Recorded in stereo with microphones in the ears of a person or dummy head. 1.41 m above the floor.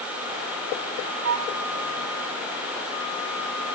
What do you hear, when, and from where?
1.2 s a flute: 65° right (ahead or behind)